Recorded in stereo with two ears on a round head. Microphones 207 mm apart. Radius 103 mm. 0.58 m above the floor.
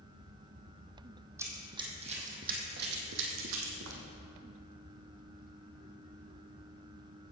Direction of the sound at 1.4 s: 10° right (ahead or behind).